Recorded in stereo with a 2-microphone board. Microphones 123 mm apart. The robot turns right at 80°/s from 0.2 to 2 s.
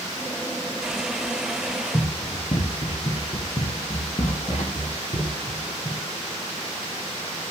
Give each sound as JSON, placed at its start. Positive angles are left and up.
{"t": 1.9, "sound": "running footsteps", "side_deg": 50, "distance_m": 3.0}